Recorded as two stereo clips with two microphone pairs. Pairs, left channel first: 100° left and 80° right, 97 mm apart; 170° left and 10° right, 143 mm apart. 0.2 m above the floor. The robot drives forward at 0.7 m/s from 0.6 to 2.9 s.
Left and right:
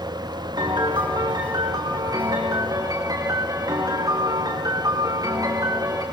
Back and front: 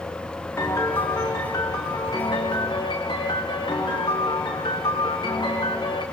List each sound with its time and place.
0.6 s a piano: 120° right, 5.5 m; by 6.0 s 130° right, 6.5 m